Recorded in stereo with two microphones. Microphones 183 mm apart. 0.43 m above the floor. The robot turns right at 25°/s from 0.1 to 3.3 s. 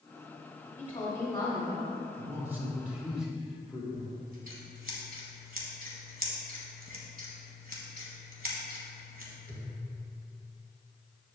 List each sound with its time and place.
0.8 s a woman speaking: 10° left (ahead or behind), 1.3 m; by 2.0 s 25° left (ahead or behind), 1.3 m
2.1 s a man speaking: 15° right (ahead or behind), 1.4 m; by 3.8 s 5° right (ahead or behind), 1.4 m
3.9 s scissors: 50° right (ahead or behind), 1.5 m